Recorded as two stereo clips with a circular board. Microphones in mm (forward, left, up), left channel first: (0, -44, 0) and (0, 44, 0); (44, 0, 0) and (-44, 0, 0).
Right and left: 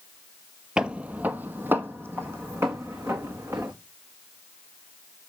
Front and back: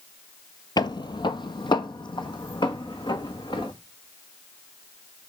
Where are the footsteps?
10° left, 0.6 m; by 3.7 s 30° left, 2.5 m.